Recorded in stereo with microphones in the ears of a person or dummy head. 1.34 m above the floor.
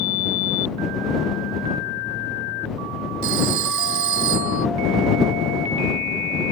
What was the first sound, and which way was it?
A phone ringing, 75° right (ahead or behind).